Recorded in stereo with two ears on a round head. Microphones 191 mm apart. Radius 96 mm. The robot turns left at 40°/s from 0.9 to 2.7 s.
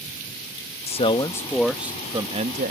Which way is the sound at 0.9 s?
30° left.